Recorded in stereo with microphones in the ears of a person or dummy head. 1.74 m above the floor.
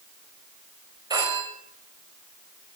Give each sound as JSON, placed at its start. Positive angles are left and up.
{"t": 1.1, "sound": "a phone ringing", "side_deg": -25, "distance_m": 6.5}